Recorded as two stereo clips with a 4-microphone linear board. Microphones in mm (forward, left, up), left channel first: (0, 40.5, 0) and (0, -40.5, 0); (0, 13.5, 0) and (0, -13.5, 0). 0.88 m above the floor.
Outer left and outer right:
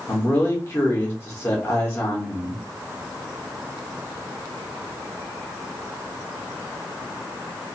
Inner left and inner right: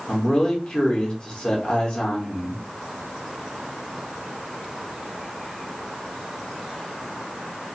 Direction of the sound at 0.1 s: 30° left (ahead or behind).